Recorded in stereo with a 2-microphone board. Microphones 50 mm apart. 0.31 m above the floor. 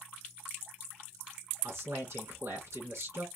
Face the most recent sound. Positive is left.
turn(degrees=-65)  # may be behind; listen again after turning